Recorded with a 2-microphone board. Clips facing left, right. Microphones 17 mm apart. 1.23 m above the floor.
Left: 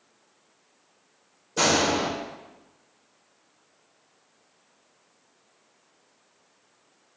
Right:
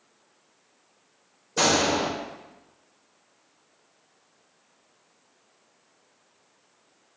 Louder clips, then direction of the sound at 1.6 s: Even; 25° right (ahead or behind).